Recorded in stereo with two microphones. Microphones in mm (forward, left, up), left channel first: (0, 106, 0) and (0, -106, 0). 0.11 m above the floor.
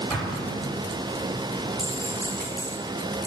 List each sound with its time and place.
0.1 s an explosion: centre (ahead or behind), 7.5 m
1.8 s a clink: 40° right (ahead or behind), 7 m